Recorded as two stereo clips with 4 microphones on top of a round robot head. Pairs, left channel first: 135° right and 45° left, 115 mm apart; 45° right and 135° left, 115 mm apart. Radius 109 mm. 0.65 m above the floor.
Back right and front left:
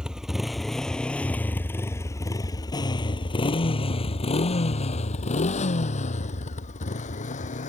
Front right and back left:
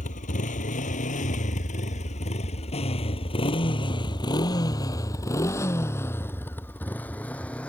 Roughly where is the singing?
No singing in this recording.